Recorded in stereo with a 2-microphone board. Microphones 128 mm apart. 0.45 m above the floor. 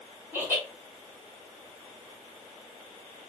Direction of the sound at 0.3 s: 15° right (ahead or behind).